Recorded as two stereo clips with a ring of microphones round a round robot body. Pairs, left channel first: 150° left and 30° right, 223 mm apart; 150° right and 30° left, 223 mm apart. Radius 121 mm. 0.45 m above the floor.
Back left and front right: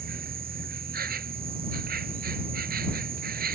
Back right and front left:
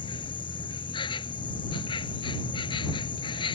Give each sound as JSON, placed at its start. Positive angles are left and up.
{"t": 0.0, "sound": "an insect", "azimuth_deg": -80}